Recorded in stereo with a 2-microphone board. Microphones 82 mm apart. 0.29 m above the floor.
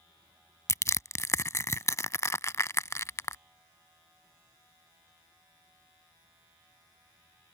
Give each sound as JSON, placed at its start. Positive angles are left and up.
{"t": 0.7, "sound": "crushing", "side_deg": 40}